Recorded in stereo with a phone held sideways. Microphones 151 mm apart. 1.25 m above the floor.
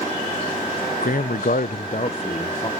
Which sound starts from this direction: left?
A man speaking, at 1.0 s.